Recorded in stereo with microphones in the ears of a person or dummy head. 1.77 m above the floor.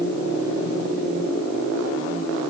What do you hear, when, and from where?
Only background noise.